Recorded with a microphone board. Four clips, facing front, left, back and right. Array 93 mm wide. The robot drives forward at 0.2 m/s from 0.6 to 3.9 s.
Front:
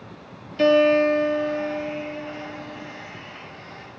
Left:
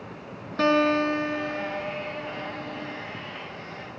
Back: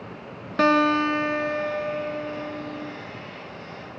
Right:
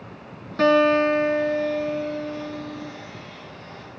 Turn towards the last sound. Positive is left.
turn(degrees=180)